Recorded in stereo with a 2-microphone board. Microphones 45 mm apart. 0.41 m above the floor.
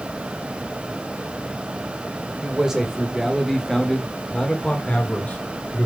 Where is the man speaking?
20° right (ahead or behind), 1.7 m; by 5.9 s 40° left (ahead or behind), 1.8 m.